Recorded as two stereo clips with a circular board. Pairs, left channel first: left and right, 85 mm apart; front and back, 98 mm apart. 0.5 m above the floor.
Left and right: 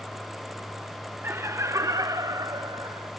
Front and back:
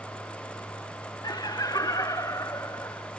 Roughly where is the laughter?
Ahead right.